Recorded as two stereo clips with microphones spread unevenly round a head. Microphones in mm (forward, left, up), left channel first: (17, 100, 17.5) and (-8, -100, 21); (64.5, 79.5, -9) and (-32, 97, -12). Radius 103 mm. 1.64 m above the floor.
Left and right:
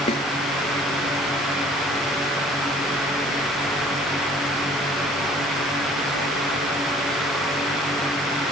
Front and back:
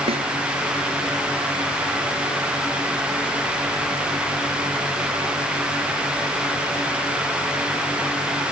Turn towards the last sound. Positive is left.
turn(degrees=150)